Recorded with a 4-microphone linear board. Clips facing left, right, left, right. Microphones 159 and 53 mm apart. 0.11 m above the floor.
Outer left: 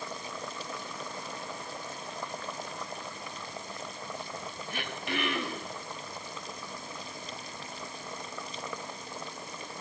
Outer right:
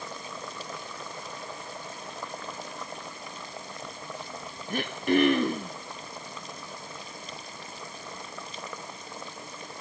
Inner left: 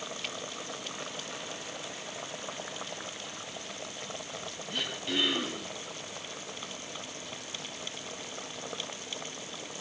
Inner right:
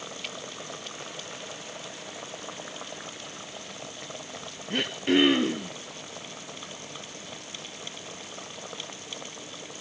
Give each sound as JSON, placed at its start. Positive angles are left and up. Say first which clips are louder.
{"t": 4.7, "sound": "throat clearing", "louder": "outer right 12 dB, inner right 10 dB", "side_deg": -45, "distance_m": 3.0}